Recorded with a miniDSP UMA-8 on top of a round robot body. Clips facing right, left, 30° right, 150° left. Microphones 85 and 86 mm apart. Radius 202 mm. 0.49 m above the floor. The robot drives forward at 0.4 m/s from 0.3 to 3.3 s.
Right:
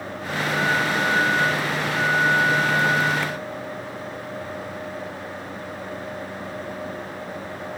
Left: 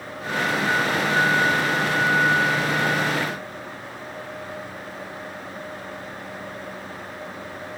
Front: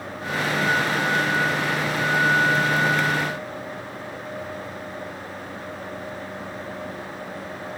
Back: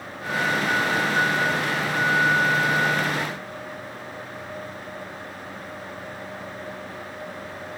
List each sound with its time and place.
Only background noise.